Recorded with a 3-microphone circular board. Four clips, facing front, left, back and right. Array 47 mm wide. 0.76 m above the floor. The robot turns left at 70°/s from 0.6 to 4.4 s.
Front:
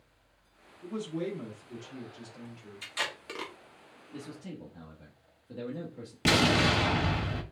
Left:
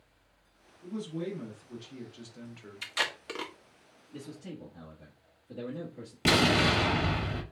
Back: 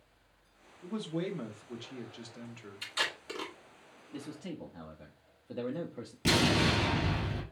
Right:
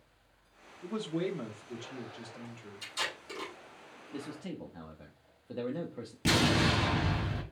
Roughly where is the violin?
I don't hear a violin.